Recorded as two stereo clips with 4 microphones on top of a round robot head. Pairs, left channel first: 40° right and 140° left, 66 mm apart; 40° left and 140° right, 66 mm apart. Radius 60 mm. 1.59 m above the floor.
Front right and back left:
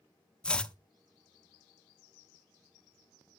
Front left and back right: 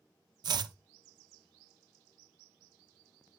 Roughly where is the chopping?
Behind right.